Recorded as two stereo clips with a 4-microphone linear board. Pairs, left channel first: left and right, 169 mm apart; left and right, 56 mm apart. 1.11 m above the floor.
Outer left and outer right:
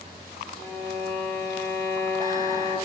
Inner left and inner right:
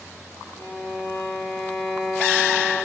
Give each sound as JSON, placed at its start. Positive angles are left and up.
{"t": 0.6, "sound": "a violin", "side_deg": 85, "distance_m": 1.4}